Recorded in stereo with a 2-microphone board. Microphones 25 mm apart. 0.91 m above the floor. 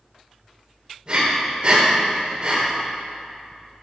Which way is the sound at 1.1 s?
30° right (ahead or behind).